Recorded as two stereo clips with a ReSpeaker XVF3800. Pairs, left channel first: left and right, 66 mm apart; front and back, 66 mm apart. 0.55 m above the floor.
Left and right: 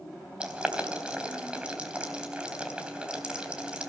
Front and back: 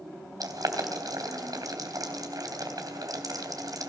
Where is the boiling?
165° right, 3 m.